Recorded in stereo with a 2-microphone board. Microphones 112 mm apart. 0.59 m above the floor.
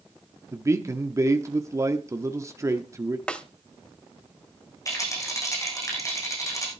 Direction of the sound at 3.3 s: 10° left (ahead or behind).